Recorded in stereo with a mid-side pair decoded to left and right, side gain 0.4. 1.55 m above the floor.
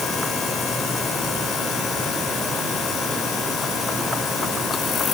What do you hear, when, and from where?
Only background noise.